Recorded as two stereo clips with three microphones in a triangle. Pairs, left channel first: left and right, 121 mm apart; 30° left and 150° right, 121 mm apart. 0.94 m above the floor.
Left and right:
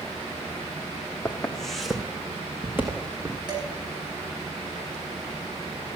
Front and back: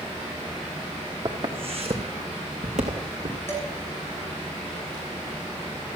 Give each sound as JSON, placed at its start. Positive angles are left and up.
{"t": 1.2, "sound": "footsteps", "azimuth_deg": 170, "distance_m": 2.0}
{"t": 3.5, "sound": "dishes clattering", "azimuth_deg": -40, "distance_m": 5.0}